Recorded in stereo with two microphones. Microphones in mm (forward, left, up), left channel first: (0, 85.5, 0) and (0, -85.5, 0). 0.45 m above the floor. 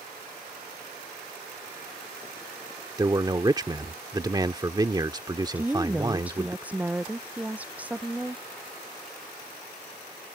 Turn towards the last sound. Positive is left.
turn(degrees=-10)  # may be behind; listen again after turning